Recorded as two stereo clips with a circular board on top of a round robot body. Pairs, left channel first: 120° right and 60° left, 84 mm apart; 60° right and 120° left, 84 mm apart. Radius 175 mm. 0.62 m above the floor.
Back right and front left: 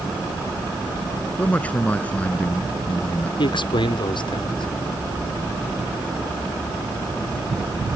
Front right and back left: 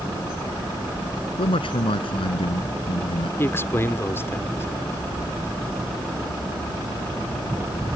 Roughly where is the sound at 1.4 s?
Ahead right.